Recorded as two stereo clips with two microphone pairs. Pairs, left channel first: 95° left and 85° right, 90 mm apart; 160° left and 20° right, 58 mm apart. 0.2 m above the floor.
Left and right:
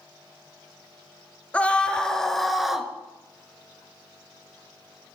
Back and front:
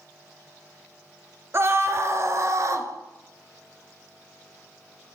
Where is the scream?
20° left, 3.5 m; by 2.9 s 5° right, 3 m.